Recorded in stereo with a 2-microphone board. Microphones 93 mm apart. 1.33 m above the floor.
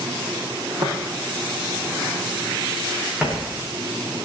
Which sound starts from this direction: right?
Footsteps, at 0.8 s.